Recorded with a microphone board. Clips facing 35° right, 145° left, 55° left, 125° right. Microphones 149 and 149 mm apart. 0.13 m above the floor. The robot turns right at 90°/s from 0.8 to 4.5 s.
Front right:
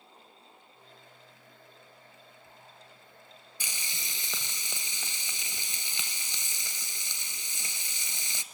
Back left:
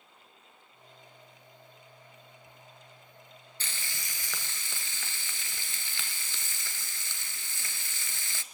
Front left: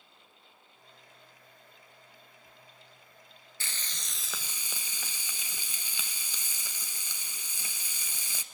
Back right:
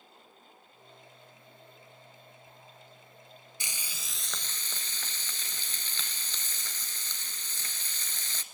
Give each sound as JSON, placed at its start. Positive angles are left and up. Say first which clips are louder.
{"t": 3.6, "sound": "frying", "louder": "even, front left 1 dB", "azimuth_deg": -85, "distance_m": 1.1}